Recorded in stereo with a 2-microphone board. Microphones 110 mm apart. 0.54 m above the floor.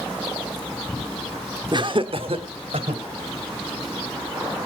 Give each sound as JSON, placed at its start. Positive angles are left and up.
{"t": 1.7, "sound": "laughter", "side_deg": -45, "distance_m": 0.9}